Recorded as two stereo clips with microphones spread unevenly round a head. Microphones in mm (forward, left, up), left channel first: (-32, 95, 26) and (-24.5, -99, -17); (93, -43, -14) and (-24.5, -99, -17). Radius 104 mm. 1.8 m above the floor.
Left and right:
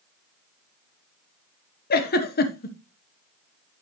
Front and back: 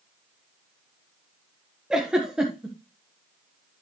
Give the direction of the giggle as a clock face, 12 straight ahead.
8 o'clock.